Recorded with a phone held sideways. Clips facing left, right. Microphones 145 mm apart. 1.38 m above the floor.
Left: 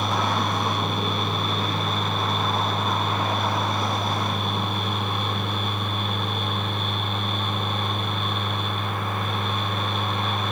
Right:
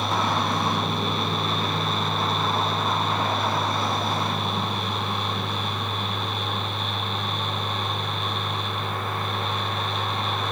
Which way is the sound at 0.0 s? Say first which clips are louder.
Even; 55° left (ahead or behind).